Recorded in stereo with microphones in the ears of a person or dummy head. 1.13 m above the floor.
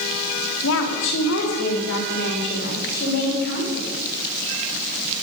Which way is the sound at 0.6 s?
75° left (ahead or behind).